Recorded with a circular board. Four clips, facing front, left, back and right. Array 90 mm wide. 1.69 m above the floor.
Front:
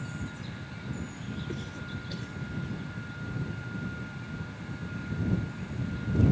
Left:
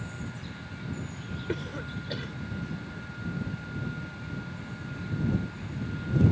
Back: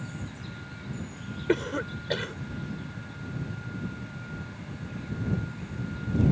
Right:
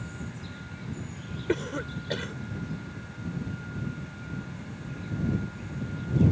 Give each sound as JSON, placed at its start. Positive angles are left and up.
{"t": 1.5, "sound": "a cough", "azimuth_deg": -160}